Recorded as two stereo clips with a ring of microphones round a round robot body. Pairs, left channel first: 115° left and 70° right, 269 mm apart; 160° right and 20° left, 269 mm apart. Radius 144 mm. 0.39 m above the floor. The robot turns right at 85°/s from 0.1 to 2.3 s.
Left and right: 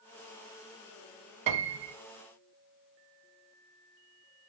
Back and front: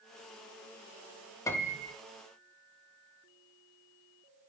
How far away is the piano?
About 0.9 m.